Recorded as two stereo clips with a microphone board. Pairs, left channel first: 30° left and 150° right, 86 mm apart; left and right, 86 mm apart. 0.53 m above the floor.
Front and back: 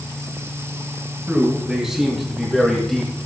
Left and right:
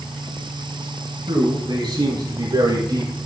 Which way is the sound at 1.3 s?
70° right.